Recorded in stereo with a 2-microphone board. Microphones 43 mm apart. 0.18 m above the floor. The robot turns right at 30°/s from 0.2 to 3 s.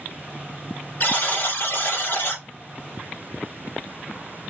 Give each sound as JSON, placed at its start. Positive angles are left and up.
{"t": 1.0, "sound": "a buzzer", "azimuth_deg": 60, "distance_m": 2.0}